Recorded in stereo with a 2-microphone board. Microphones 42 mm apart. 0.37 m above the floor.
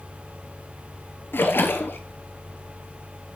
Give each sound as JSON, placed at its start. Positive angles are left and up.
{"t": 1.3, "sound": "a splash", "side_deg": 60, "distance_m": 1.5}